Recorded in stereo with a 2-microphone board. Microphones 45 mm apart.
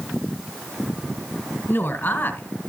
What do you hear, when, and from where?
1.7 s a woman speaking: 50° left (ahead or behind), 1.8 m